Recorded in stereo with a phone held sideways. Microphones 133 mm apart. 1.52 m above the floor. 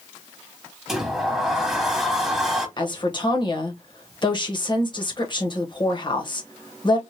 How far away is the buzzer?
I don't hear a buzzer.